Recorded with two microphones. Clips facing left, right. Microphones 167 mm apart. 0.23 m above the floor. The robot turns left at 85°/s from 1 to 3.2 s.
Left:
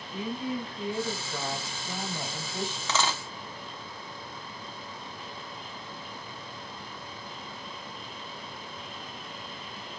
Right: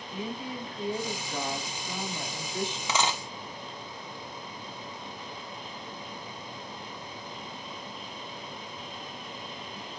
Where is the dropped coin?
15° right (ahead or behind), 0.6 m; by 3.2 s 20° right (ahead or behind), 0.6 m.